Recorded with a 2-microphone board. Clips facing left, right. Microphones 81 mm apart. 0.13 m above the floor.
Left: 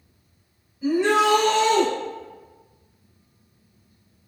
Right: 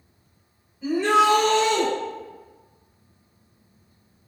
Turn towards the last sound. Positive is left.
turn(degrees=15)  # may be behind; listen again after turning